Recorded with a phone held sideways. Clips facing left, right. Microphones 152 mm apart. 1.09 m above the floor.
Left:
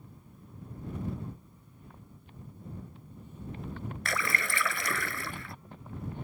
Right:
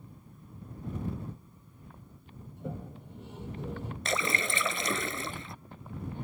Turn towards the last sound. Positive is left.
turn(degrees=-20)  # may be behind; listen again after turning